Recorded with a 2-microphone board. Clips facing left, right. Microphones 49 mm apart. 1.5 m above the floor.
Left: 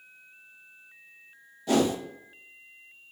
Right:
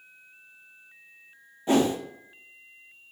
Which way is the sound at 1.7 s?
25° right (ahead or behind).